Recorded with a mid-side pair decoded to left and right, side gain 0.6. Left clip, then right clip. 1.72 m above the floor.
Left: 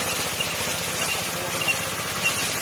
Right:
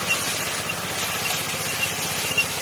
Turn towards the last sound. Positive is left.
No sound to turn to.